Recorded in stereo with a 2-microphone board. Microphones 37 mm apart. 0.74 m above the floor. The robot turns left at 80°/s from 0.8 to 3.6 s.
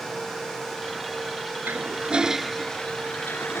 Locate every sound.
1.6 s a toilet flushing: 115° right; by 3.6 s 90° left